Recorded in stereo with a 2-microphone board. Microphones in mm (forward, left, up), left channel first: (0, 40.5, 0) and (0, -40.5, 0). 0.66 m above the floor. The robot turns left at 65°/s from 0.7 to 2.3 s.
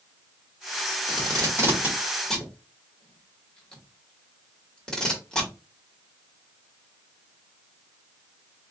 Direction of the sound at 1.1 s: 65° right (ahead or behind).